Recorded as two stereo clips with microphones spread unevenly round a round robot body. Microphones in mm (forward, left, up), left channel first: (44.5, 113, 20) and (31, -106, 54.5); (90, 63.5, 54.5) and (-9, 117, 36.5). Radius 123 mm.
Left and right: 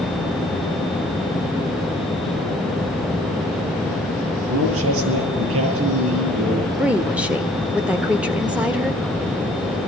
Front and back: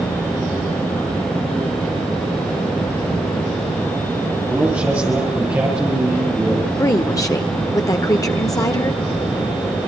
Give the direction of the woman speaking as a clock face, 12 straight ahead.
12 o'clock.